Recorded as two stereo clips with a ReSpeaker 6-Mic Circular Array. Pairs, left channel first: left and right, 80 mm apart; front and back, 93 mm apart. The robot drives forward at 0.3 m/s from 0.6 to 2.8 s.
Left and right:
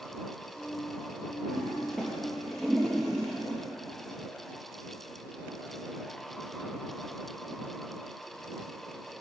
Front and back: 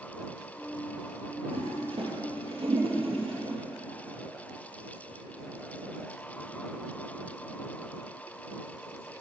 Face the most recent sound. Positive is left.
turn(degrees=180)